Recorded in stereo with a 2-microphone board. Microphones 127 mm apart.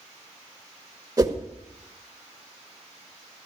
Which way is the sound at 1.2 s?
30° right (ahead or behind).